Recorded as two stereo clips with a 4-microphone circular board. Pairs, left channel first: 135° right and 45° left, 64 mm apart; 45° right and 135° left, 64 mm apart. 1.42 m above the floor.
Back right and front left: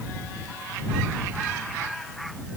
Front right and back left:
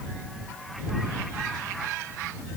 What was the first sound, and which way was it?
Only background noise.